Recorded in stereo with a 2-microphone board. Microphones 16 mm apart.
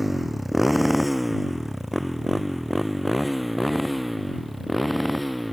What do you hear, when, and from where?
0.0 s a motorcycle: 5° right (ahead or behind); by 5.5 s 5° left (ahead or behind)